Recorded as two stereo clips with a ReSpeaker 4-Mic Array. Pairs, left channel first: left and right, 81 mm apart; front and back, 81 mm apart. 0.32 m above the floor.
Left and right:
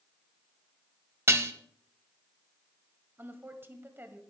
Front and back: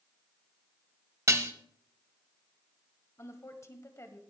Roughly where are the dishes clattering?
Behind right.